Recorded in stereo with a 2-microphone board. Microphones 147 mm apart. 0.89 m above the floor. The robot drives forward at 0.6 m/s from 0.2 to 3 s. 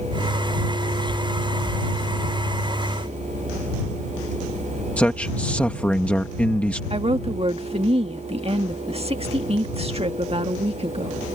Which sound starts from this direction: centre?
A man speaking, at 5.0 s.